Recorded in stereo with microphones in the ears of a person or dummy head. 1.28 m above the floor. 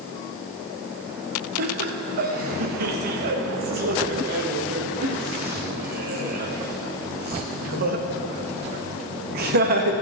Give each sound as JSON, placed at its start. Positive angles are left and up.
{"t": 1.6, "sound": "laughter", "side_deg": -55, "distance_m": 1.6}